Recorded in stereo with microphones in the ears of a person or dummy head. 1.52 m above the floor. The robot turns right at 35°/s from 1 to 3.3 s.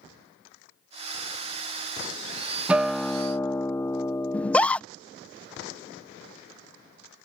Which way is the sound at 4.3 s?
5° left (ahead or behind).